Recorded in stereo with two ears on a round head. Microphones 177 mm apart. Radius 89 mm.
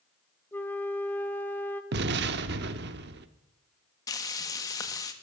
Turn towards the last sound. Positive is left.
turn(degrees=20)  # may be behind; listen again after turning